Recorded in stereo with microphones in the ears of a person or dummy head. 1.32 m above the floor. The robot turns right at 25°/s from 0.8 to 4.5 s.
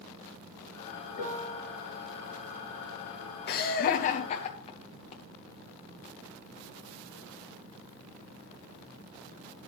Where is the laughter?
55° left (ahead or behind), 0.7 m; by 5.2 s 35° left (ahead or behind), 0.7 m.